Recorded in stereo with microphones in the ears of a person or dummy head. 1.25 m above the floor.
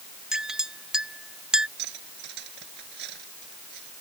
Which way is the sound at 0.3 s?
5° right (ahead or behind).